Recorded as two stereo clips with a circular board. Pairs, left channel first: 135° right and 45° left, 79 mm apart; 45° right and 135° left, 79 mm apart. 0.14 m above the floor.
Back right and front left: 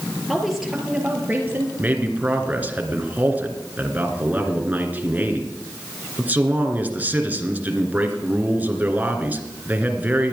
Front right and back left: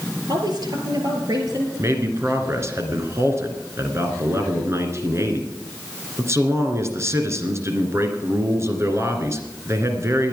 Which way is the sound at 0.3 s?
140° left.